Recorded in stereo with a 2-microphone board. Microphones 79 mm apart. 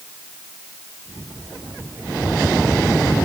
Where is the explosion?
I don't hear an explosion.